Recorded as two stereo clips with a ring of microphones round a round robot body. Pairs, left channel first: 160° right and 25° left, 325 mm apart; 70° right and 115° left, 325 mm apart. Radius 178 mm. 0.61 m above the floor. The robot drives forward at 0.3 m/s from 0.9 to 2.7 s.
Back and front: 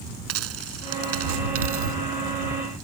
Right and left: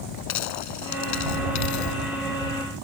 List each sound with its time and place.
0.3 s a dropped coin: 25° right; by 2.0 s 30° right